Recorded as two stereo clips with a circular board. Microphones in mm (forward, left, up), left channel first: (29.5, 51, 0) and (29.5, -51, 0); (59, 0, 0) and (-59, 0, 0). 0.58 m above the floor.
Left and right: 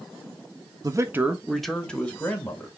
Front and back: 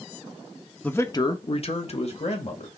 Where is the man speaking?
70° right, 0.9 m; by 2.7 s 20° left, 2.5 m.